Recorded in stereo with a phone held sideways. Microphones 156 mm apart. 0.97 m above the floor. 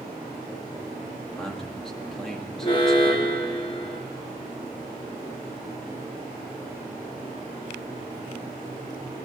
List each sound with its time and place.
1.3 s a man speaking: centre (ahead or behind), 2 m
2.6 s an alarm: 35° left (ahead or behind), 2.0 m